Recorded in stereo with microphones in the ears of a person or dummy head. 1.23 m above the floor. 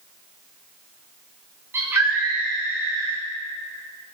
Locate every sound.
1.7 s a scream: 10° right (ahead or behind), 6 m